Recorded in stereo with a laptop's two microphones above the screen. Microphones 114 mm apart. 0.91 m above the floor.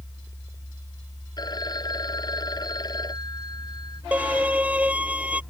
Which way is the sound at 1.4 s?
35° left (ahead or behind).